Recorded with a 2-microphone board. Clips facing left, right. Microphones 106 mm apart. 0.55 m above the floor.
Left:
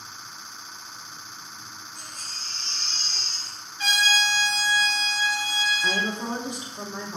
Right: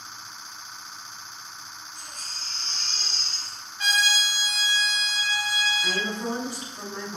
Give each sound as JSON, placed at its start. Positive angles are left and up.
{"t": 1.9, "sound": "a baby crying", "side_deg": -85, "distance_m": 2.0}
{"t": 3.8, "sound": "a trumpet", "side_deg": -75, "distance_m": 1.6}
{"t": 5.8, "sound": "a woman speaking", "side_deg": 20, "distance_m": 0.7}